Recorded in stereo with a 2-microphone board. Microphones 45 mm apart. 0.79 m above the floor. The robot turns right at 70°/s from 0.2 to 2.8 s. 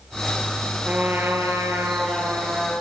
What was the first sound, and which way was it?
A trumpet, 150° right.